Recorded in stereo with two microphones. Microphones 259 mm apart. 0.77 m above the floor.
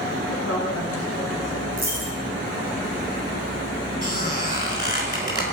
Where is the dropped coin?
35° right (ahead or behind), 8.5 m.